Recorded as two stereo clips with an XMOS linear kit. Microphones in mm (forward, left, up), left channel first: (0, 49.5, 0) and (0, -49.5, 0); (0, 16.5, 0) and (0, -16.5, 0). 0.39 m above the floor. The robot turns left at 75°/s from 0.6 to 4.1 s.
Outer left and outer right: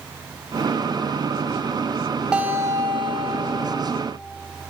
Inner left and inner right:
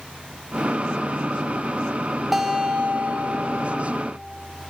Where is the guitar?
10° right, 0.5 m; by 3.8 s 115° right, 0.5 m.